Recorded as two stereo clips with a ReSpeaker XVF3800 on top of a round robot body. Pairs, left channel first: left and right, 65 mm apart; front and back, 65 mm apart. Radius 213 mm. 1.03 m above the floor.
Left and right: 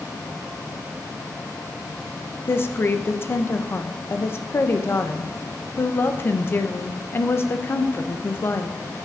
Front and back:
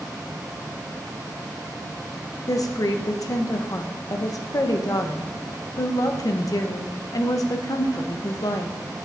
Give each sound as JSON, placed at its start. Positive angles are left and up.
{"t": 2.5, "sound": "a woman speaking", "azimuth_deg": 35, "distance_m": 0.6}